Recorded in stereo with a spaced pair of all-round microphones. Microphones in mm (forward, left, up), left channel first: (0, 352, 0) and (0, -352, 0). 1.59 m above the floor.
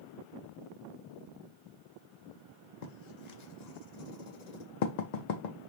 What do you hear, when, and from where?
2.8 s writing: 70° left (ahead or behind), 0.7 m